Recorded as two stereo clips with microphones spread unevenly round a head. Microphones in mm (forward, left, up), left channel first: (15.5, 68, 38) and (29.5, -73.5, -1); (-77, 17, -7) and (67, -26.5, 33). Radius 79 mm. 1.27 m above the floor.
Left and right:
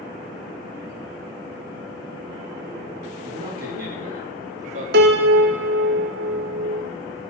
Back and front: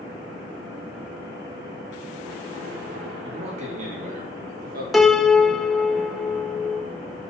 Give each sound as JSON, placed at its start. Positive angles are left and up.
{"t": 3.2, "sound": "a man speaking", "azimuth_deg": -75, "distance_m": 3.0}
{"t": 4.9, "sound": "a piano", "azimuth_deg": -105, "distance_m": 0.7}